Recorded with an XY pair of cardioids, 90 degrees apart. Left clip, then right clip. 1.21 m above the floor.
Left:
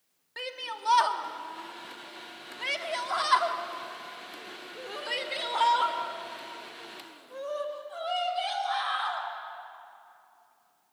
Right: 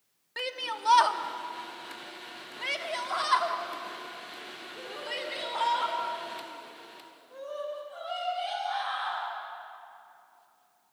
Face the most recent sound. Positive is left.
turn(degrees=55)